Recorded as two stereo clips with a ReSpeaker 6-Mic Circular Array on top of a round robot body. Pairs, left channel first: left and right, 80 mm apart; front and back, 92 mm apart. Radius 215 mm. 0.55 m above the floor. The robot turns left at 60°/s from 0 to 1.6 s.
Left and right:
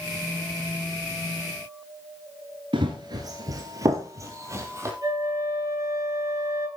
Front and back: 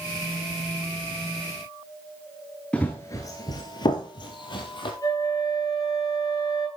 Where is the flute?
50° right, 8 m.